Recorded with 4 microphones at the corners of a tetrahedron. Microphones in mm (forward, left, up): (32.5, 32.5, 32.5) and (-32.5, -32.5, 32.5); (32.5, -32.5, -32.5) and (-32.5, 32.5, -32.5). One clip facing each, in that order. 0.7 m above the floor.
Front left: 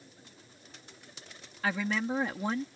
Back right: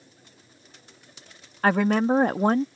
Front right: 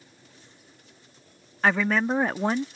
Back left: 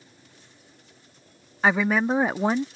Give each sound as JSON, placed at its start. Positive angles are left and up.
{"t": 1.6, "sound": "a woman speaking", "azimuth_deg": -145}